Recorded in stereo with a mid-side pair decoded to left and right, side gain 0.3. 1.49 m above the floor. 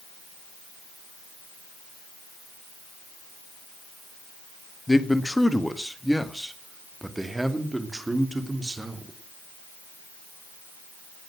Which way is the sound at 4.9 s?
20° left.